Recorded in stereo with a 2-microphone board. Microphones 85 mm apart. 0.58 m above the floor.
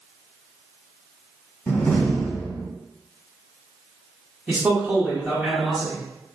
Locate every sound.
1.7 s a door slam: 25° left (ahead or behind), 1.7 m
4.5 s a man speaking: 20° right (ahead or behind), 1.2 m